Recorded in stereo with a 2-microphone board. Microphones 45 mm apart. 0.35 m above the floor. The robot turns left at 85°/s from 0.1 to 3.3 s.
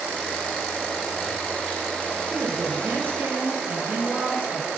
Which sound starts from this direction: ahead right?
A woman speaking, at 2.3 s.